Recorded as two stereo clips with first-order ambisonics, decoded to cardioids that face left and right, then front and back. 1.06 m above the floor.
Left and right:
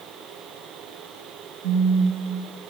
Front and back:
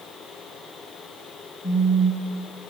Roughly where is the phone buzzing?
Right.